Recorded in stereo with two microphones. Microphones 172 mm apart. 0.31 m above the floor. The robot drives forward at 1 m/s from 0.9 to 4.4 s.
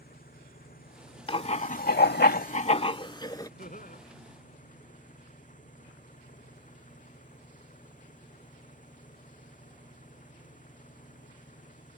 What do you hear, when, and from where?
0.0 s an engine running: 60° left (ahead or behind); by 12.0 s 50° left (ahead or behind)
1.3 s writing: 35° left (ahead or behind); by 3.5 s 20° left (ahead or behind)
3.6 s laughter: 55° left (ahead or behind); by 4.0 s 50° left (ahead or behind)